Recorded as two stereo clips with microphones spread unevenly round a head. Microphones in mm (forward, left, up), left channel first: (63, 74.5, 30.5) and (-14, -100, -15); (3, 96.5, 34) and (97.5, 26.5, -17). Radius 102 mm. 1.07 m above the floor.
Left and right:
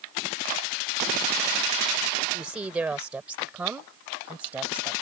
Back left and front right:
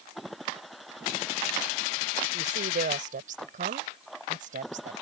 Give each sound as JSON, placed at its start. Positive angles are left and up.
{"t": 2.3, "sound": "a woman speaking", "azimuth_deg": -30}